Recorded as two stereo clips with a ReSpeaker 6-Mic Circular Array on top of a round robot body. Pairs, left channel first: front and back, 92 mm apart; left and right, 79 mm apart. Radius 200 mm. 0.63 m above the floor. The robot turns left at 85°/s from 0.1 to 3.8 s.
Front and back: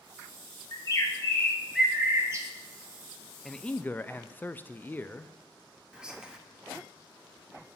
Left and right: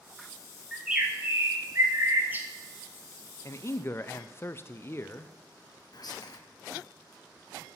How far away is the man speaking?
About 0.6 m.